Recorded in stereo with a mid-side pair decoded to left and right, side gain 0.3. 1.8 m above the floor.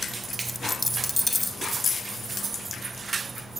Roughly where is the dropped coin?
Ahead left.